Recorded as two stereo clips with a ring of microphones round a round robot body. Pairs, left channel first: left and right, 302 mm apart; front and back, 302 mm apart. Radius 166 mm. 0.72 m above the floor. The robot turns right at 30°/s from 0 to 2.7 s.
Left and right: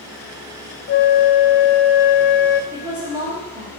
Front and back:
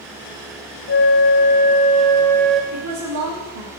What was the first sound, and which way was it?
A flute, 40° left.